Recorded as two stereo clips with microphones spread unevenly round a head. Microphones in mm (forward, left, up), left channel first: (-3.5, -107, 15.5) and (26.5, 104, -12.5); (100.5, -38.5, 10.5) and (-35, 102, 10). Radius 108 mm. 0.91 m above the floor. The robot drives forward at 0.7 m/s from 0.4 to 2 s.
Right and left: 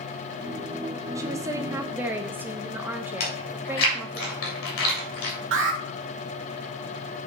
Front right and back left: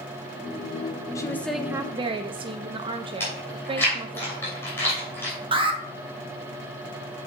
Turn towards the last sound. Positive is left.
turn(degrees=75)